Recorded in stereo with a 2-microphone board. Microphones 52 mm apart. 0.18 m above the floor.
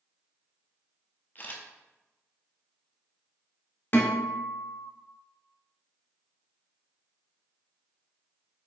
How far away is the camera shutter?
About 0.8 m.